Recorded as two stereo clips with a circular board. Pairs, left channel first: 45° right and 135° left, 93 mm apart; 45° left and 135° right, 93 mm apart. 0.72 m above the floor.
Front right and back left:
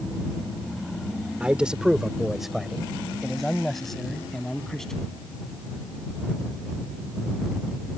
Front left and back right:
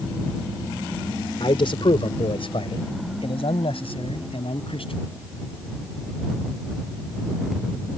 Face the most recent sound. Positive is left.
turn(degrees=40)